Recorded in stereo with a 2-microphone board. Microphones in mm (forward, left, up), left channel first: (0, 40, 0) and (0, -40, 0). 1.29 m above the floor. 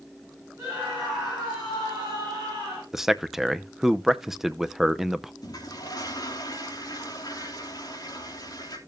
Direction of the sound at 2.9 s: 5° right (ahead or behind).